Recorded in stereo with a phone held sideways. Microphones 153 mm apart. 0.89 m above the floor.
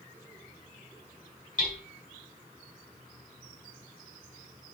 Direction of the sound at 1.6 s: 55° left (ahead or behind).